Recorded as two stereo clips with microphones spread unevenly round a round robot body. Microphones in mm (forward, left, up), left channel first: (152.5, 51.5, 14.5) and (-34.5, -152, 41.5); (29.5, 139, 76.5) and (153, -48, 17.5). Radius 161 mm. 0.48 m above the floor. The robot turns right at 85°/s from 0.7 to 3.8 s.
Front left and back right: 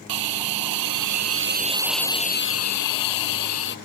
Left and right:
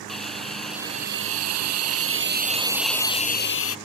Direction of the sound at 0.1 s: 150° right.